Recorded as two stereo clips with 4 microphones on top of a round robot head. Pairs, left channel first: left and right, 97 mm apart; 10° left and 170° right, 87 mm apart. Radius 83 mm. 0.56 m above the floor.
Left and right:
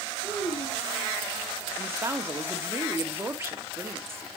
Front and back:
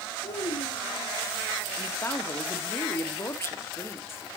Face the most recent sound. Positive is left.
turn(degrees=-35)